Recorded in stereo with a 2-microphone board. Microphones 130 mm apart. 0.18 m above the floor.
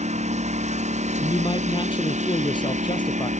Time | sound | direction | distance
0.0 | a lawn mower | 60° right (ahead or behind) | ?
1.2 | a man speaking | 40° left (ahead or behind) | ?